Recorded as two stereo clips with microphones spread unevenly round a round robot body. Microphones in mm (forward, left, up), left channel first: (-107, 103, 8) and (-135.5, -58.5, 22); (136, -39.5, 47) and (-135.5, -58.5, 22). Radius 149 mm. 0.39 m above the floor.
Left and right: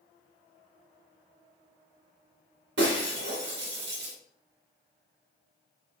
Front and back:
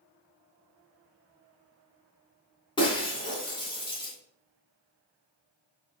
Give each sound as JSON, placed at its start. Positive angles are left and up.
{"t": 2.8, "sound": "breaking glass", "azimuth_deg": -70, "distance_m": 2.5}